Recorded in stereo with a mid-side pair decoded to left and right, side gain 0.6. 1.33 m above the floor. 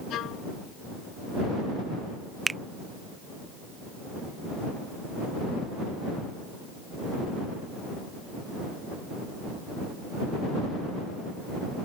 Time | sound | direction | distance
0.1 | a violin | 60° left | ?
2.5 | a finger snap | 15° right | ?